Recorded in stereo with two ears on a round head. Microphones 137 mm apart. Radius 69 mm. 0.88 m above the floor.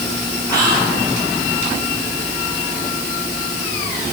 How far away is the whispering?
About 5.5 m.